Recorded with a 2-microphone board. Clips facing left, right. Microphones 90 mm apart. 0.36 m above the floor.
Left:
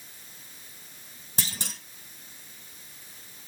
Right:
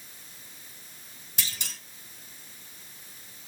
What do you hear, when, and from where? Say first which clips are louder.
1.4 s a clunk: left 3 dB; 35° left (ahead or behind), 1.4 m